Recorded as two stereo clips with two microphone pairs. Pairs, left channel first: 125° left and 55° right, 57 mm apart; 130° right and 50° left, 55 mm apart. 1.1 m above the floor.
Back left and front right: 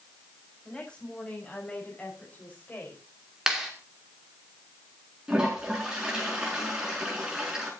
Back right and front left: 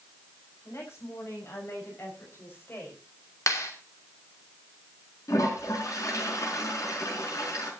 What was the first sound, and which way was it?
A woman speaking, 160° right.